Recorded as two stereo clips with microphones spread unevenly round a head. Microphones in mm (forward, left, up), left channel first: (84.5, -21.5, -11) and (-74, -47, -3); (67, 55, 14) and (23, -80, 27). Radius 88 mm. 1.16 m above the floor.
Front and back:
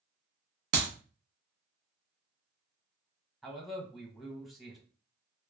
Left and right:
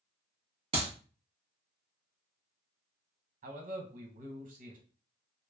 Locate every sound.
0.7 s a clap: 165° right, 0.6 m
3.4 s a man speaking: 80° right, 1.0 m